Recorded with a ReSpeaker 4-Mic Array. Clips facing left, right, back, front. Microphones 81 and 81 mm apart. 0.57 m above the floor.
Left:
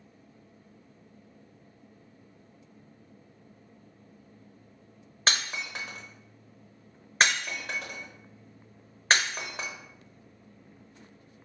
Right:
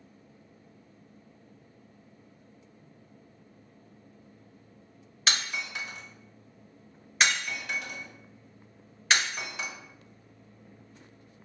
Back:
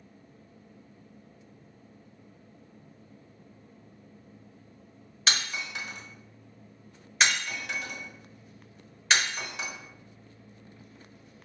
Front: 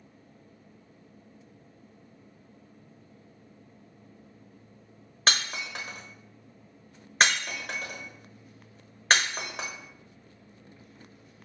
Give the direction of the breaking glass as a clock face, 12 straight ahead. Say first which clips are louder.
Left 1 dB, front 2 dB; 11 o'clock.